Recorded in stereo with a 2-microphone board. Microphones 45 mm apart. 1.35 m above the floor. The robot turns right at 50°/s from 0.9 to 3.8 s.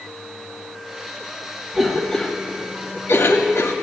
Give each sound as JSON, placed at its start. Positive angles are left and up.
{"t": 1.7, "sound": "a cough", "side_deg": -5, "distance_m": 1.2}